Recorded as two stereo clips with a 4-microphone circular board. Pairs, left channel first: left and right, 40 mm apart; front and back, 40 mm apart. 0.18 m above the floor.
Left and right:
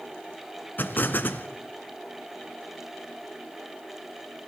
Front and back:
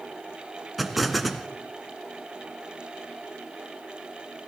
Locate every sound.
0.8 s an explosion: 90° left, 1.8 m